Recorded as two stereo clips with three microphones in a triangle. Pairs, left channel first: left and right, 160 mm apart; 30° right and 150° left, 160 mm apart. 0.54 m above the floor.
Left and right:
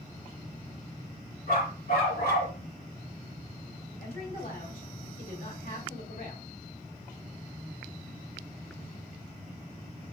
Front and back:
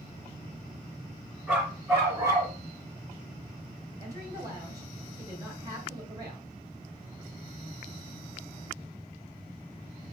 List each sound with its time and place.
1.5 s a dog barking: 70° left, 2.5 m; by 2.5 s 90° left, 1.1 m
4.0 s a woman speaking: 85° left, 1.8 m